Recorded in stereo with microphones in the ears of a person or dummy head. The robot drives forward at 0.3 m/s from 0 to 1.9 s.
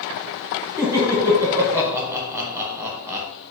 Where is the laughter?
10° right (ahead or behind), 1.0 m.